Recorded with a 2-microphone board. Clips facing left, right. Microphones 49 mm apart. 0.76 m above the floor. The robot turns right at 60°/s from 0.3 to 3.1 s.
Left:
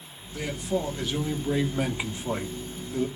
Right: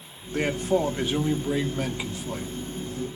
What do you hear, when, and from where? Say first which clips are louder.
0.3 s a man speaking: right 5 dB; 75° right, 1.7 m; by 3.1 s 85° left, 1.7 m